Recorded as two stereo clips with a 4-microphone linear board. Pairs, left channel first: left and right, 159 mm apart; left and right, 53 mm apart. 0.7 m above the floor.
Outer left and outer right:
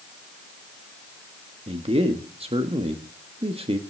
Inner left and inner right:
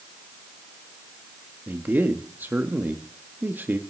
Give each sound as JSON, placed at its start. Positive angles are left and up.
{"t": 1.7, "sound": "a man speaking", "side_deg": -35, "distance_m": 1.3}